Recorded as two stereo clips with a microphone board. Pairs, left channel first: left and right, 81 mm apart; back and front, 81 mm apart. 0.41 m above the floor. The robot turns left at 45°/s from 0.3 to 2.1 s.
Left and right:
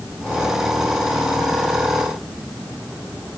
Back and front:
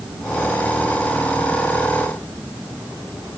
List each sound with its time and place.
Only background noise.